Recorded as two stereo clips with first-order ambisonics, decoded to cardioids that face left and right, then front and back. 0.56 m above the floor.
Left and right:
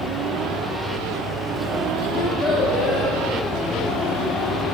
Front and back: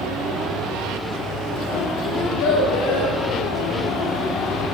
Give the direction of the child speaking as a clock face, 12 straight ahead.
11 o'clock.